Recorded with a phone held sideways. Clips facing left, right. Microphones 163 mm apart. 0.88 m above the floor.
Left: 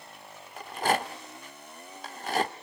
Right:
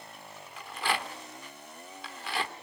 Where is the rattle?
45° left (ahead or behind), 1.1 m.